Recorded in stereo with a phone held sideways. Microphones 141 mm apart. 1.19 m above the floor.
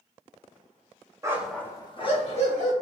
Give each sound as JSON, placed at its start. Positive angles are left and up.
{"t": 1.2, "sound": "a dog barking", "side_deg": -25, "distance_m": 0.6}